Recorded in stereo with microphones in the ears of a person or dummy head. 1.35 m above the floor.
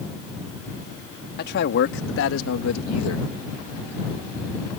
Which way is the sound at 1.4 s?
45° left (ahead or behind).